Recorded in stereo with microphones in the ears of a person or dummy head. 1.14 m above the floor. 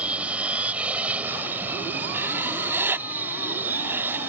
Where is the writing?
5° right (ahead or behind).